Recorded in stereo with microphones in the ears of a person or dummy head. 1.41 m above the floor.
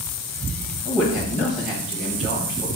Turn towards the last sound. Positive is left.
turn(degrees=-5)  # may be behind; listen again after turning